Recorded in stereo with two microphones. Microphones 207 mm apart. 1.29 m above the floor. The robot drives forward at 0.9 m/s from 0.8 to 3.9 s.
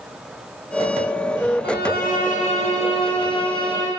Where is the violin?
50° left (ahead or behind), 1.2 m; by 3.9 s 20° left (ahead or behind), 3 m.